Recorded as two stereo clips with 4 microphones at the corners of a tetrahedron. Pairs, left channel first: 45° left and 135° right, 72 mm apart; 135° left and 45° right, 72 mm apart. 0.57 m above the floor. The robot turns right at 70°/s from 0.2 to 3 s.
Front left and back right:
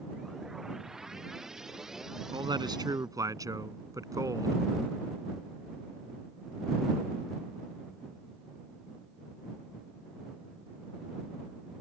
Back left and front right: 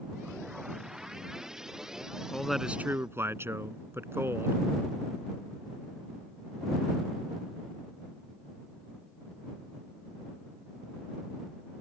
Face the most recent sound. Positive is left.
turn(degrees=-100)